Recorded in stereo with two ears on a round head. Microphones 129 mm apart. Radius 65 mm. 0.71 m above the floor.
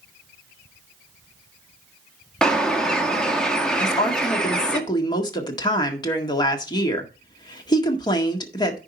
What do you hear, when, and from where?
2.4 s a bird: 5° left (ahead or behind), 1.5 m
3.8 s a woman speaking: 30° left (ahead or behind), 1.8 m